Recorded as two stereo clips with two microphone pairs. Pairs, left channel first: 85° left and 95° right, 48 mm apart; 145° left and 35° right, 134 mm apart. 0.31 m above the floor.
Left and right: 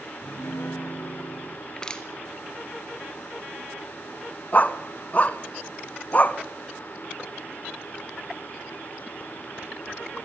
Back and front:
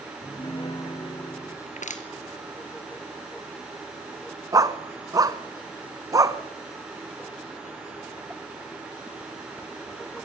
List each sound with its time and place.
0.2 s a piano: 95° left, 2.5 m
1.7 s crushing: 155° left, 2.5 m
4.5 s a dog barking: 25° left, 1.0 m